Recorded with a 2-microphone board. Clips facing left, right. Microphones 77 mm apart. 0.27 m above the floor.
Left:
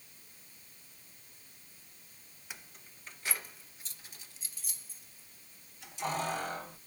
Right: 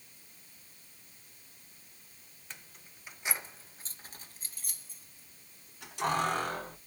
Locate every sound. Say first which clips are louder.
2.5 s keys jangling: left 1 dB; 10° left (ahead or behind), 0.8 m; by 6.8 s 70° right (ahead or behind), 2.5 m